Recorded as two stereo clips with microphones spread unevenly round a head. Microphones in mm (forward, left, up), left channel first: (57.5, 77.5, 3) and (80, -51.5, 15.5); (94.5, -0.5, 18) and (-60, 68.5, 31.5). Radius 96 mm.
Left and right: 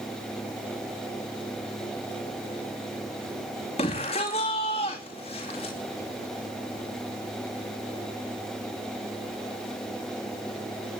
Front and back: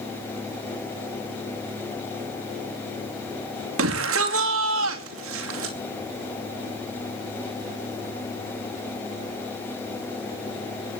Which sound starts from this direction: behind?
A shout, at 3.8 s.